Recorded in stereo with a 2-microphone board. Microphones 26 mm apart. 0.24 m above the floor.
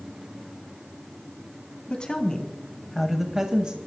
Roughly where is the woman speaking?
Left.